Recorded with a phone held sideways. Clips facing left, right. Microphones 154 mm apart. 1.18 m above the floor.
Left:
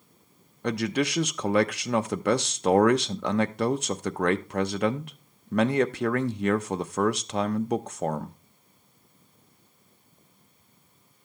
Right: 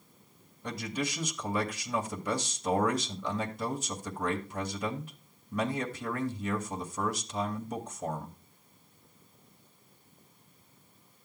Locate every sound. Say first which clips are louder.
0.6 s a man speaking: left 9 dB; 75° left (ahead or behind), 0.7 m